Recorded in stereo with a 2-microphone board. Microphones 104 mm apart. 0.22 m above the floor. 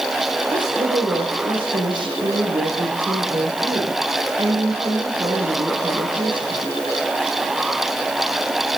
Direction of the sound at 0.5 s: 50° right (ahead or behind).